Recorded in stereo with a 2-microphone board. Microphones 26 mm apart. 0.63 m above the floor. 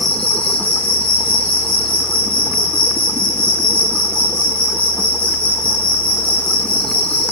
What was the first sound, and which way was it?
An insect, 60° left (ahead or behind).